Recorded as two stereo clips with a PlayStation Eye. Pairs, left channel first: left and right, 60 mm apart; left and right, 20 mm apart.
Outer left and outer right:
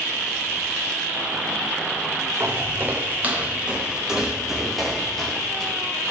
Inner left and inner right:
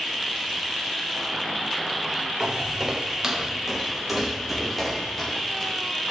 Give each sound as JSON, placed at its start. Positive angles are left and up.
{"t": 2.4, "sound": "footsteps", "side_deg": -40, "distance_m": 2.0}